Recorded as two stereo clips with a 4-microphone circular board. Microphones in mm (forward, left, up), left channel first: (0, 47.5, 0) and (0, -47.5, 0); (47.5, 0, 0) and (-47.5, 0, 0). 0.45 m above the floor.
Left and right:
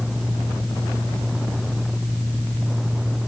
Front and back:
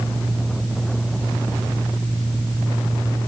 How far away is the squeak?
I don't hear a squeak.